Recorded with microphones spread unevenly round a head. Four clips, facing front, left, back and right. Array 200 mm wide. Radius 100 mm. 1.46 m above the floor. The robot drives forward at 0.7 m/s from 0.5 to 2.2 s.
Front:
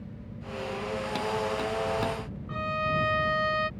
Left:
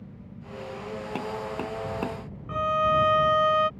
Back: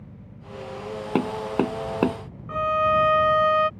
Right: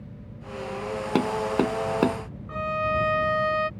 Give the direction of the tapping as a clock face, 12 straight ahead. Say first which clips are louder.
Right 10 dB, back 8 dB; 5 o'clock.